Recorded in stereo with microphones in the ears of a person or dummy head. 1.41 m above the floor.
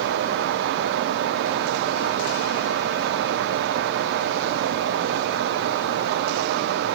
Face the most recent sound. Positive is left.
No sound to turn to.